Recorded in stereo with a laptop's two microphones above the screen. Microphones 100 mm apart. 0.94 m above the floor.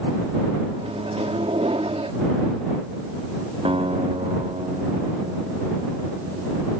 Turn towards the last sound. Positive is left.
turn(degrees=-65)  # may be behind; listen again after turning